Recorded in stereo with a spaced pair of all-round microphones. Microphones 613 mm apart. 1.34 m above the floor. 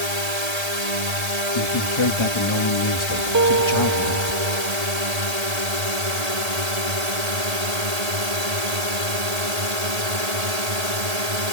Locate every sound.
0.0 s a drone: 80° right
1.6 s a man speaking: 50° left (ahead or behind)
3.3 s a piano: 30° right (ahead or behind)